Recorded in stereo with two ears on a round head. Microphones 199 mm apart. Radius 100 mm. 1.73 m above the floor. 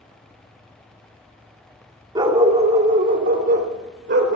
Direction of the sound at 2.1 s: 20° right (ahead or behind).